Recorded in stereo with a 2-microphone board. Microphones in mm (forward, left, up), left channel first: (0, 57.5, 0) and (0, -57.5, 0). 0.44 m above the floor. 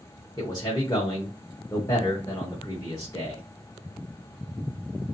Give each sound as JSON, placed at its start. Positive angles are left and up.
{"t": 0.4, "sound": "a man speaking", "side_deg": 35, "distance_m": 1.0}